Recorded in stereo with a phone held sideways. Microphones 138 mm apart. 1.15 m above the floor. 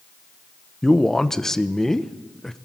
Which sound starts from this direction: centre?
A man speaking, at 0.8 s.